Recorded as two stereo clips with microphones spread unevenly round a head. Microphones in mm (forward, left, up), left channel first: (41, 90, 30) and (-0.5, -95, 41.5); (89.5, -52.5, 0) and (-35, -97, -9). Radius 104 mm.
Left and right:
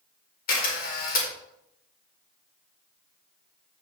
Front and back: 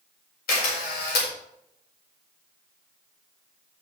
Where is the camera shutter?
35° left, 4.5 m.